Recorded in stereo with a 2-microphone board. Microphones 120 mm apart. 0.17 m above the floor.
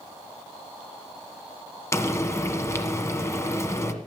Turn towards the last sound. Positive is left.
turn(degrees=25)  # may be behind; listen again after turning